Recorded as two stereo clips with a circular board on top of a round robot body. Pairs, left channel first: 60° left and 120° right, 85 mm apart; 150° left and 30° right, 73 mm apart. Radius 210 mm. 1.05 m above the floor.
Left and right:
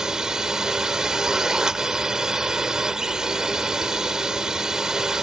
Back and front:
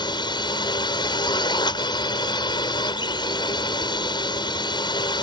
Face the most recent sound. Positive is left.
turn(degrees=160)